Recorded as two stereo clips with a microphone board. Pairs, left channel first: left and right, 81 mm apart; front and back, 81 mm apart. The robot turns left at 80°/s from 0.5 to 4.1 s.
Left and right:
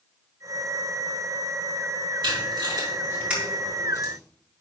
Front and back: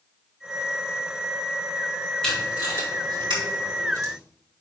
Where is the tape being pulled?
80° right, 4 m; by 4.1 s 130° left, 4 m.